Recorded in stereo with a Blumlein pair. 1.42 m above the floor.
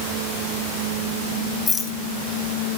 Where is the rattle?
15° left, 3.5 m.